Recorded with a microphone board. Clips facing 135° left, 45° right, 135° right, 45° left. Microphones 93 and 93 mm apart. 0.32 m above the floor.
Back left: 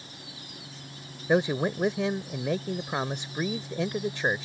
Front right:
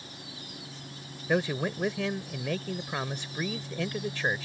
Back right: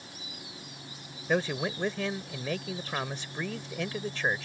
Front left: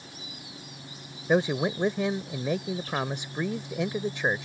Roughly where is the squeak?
I don't hear a squeak.